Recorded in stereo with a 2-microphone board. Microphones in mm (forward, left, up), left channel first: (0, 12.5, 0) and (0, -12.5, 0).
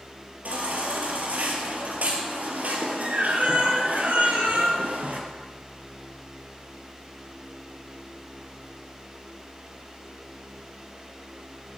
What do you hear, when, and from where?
0.5 s a baby crying: 70° right (ahead or behind), 3.5 m